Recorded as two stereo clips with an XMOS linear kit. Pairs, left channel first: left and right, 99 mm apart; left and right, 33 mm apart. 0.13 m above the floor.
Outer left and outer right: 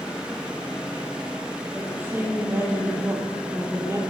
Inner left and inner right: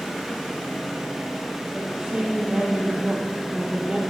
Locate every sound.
1.7 s a woman speaking: 20° right (ahead or behind), 4 m; by 4.0 s 30° right (ahead or behind), 3 m